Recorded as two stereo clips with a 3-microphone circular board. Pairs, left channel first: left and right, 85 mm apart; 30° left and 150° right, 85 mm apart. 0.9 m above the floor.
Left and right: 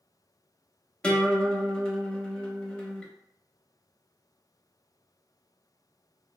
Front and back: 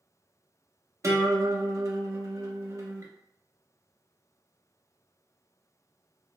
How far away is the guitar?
About 0.6 m.